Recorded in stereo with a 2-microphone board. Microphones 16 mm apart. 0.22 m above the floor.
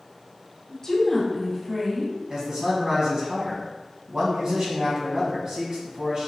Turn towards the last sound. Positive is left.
turn(degrees=-45)  # may be behind; listen again after turning